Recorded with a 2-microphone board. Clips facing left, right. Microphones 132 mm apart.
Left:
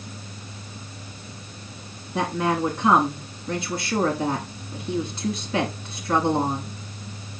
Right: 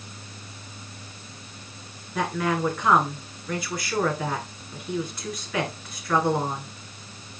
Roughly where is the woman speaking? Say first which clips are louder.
Left 2 dB; left.